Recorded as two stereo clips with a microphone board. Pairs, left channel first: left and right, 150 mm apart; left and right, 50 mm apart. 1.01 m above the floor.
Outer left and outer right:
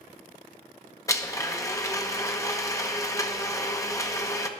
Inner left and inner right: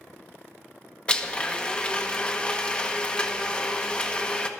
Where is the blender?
20° left (ahead or behind), 1.0 m.